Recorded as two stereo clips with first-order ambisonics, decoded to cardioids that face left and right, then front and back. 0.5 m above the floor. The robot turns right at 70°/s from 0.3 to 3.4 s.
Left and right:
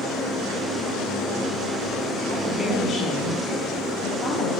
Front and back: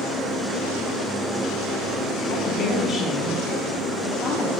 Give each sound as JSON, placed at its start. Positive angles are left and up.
{"t": 2.3, "sound": "a woman speaking", "azimuth_deg": -25, "distance_m": 1.0}